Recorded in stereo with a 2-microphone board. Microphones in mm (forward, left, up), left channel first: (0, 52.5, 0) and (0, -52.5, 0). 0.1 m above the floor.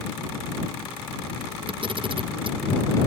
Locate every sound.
1.7 s a camera shutter: 50° right (ahead or behind)